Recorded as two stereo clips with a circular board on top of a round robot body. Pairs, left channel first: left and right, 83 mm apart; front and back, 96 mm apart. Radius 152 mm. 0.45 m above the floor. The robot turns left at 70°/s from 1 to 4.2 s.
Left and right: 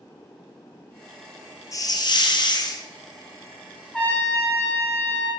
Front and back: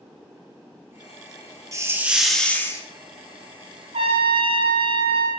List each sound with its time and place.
1.7 s a hiss: 130° left, 1.6 m; by 2.8 s 50° left, 1.6 m
3.9 s a trumpet: 170° left, 2.5 m; by 5.3 s 155° left, 2.5 m